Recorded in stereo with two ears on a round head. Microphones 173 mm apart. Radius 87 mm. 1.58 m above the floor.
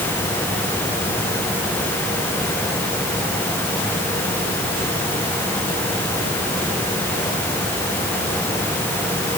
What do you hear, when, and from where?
Only background noise.